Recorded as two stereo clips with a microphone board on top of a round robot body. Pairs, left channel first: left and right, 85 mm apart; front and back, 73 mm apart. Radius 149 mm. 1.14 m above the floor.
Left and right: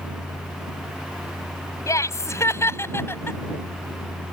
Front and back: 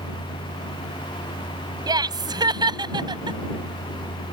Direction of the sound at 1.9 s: 145° left.